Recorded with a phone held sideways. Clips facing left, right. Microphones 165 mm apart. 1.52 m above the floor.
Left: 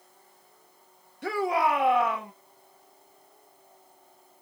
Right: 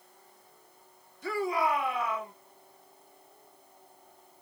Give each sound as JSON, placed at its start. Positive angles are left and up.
{"t": 1.2, "sound": "a shout", "side_deg": 70, "distance_m": 1.3}